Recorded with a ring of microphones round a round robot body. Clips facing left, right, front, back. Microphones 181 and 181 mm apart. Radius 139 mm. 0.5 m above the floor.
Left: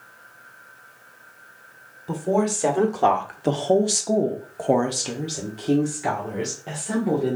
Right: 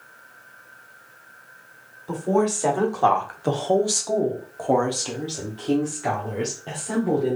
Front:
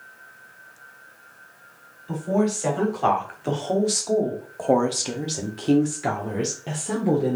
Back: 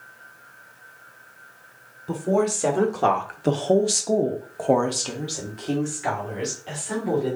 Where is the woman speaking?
160° left, 1.6 m; by 7.4 s 5° left, 1.5 m.